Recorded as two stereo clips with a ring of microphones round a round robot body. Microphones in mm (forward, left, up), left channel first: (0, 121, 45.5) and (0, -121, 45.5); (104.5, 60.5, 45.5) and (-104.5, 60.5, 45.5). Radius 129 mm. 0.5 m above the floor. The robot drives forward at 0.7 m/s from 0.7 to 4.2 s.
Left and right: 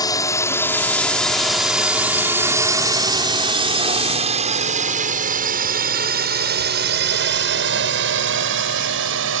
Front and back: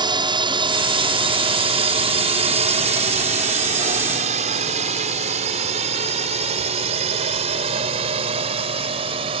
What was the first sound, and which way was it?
A drone, 145° left.